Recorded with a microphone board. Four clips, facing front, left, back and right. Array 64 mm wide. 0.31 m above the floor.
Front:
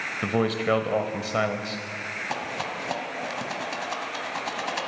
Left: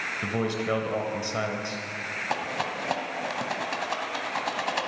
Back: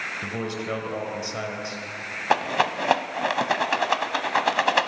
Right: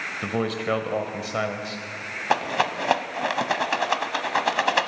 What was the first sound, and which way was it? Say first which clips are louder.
A man speaking: right 3 dB, front 10 dB; 25° right.